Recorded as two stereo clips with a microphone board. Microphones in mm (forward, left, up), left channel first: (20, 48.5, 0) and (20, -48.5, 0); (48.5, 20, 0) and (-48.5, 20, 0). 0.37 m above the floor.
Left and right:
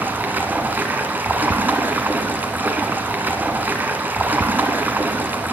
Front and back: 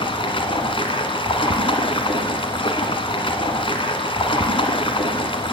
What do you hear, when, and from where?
0.0 s running water: 20° right, 1.7 m